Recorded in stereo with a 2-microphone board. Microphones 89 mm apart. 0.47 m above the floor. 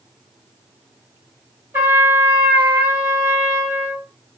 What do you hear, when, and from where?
1.7 s a trumpet: 25° right (ahead or behind), 2.5 m